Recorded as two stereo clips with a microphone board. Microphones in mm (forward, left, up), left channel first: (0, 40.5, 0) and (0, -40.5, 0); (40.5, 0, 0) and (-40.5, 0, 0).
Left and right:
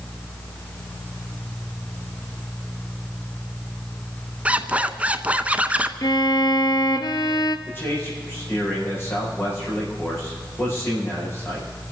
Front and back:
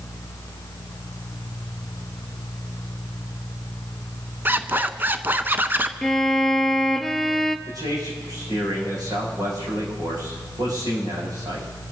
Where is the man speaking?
150° left, 8 m.